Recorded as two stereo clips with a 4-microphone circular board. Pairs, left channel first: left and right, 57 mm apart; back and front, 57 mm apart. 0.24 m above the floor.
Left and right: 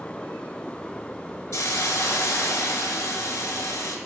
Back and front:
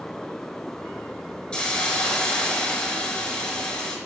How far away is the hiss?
About 0.6 m.